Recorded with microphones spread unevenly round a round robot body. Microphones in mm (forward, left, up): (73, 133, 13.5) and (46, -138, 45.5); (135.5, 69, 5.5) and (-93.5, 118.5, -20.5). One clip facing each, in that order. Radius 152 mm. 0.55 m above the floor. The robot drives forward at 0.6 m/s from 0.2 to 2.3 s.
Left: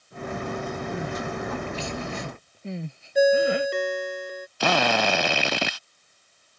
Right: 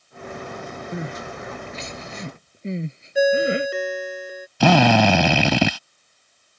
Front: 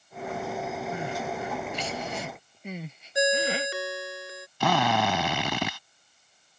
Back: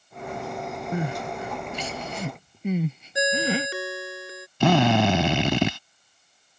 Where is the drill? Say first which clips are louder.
Right 9 dB, back 7 dB; 120° right.